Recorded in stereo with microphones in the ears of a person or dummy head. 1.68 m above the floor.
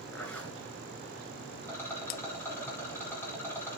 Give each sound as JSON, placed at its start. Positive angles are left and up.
{"t": 0.1, "sound": "a zipper", "side_deg": 10, "distance_m": 3.0}
{"t": 1.6, "sound": "a rattle", "side_deg": 15, "distance_m": 4.0}